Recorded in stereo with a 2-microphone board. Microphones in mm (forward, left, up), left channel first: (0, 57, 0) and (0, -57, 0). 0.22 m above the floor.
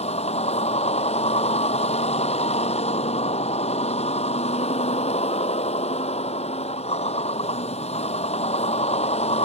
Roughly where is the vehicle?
Left.